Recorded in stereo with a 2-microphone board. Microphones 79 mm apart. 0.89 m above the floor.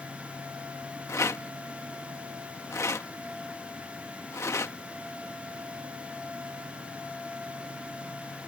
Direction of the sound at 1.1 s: 35° left (ahead or behind).